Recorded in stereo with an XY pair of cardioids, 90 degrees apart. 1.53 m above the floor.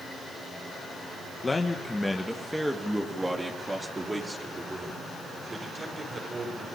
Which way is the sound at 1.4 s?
30° left.